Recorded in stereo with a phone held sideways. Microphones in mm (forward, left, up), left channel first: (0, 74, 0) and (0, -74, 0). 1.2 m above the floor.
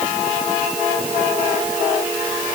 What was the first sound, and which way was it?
Only background noise.